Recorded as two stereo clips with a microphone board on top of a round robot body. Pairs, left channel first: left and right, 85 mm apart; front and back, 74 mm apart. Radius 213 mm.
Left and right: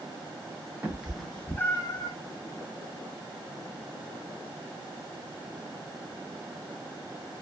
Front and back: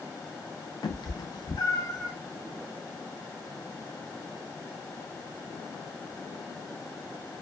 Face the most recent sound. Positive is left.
turn(degrees=50)